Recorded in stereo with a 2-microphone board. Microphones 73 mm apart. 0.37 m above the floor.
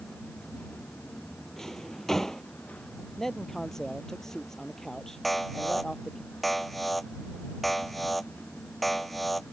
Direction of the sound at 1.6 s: 5° left (ahead or behind).